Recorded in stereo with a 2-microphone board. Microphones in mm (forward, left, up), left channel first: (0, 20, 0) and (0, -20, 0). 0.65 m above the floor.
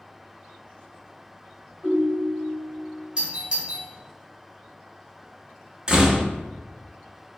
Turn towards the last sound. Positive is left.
turn(degrees=-20)  # may be behind; listen again after turning